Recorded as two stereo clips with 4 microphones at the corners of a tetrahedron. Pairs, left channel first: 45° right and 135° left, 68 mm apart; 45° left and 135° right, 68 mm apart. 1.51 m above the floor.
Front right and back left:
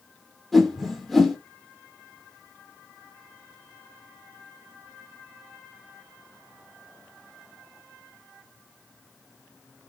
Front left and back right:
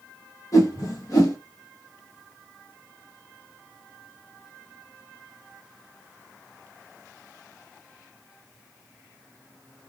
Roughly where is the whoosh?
Ahead left.